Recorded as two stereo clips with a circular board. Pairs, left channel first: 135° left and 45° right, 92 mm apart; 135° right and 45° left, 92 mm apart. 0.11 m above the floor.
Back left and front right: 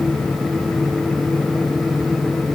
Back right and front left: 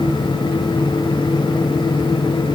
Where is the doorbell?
No doorbell in this recording.